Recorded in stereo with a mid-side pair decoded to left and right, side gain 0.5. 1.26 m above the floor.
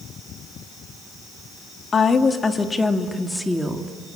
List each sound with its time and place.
1.9 s a woman speaking: 40° left, 2.5 m; by 3.9 s 5° right, 2.5 m